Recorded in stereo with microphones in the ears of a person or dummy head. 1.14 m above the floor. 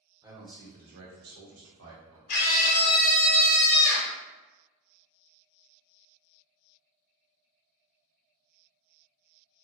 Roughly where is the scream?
Left.